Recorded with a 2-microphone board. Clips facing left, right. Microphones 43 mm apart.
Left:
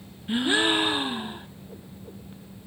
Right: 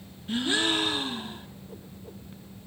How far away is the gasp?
About 0.5 m.